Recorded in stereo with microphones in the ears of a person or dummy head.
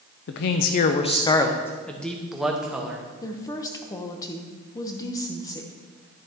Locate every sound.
0.3 s a man speaking: 65° left (ahead or behind), 0.6 m; by 3.0 s 5° right (ahead or behind), 1.4 m
3.2 s a woman speaking: 20° left (ahead or behind), 0.8 m